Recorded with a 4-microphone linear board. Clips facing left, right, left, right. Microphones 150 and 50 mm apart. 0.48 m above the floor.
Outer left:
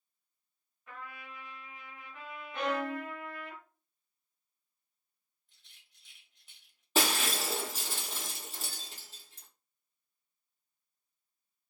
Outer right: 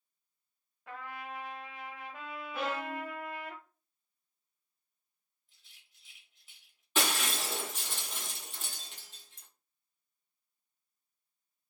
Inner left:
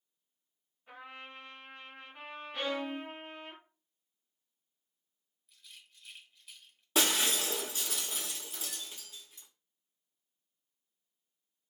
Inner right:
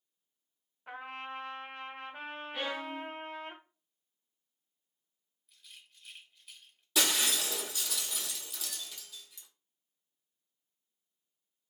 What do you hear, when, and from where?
0.9 s a trumpet: 85° right, 0.6 m
2.5 s a violin: 5° right (ahead or behind), 0.6 m
5.5 s a rattle: centre (ahead or behind), 1.0 m
7.0 s breaking glass: 40° left (ahead or behind), 0.9 m